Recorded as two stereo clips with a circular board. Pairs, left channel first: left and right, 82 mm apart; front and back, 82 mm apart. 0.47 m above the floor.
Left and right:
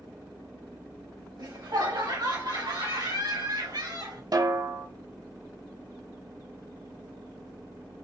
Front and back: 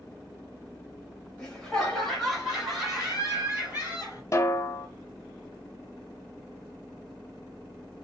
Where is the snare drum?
50° right, 0.6 m.